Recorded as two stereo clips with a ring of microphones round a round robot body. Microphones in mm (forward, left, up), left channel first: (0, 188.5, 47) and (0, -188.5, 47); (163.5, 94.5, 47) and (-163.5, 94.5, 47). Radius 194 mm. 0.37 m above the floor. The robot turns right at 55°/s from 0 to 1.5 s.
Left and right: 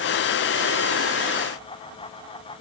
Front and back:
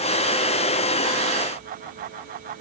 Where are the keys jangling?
No keys jangling in this recording.